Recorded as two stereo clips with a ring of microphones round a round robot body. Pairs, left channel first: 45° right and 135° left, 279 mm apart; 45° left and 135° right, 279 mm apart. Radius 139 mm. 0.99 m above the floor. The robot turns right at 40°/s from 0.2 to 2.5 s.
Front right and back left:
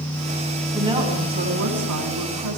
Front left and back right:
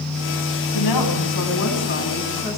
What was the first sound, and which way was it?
A woman speaking, 55° left.